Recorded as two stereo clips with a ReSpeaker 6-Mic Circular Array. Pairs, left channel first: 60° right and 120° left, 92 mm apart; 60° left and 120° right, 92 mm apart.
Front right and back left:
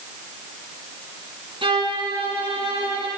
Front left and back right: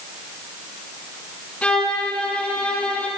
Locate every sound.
1.6 s a violin: 135° left, 6.5 m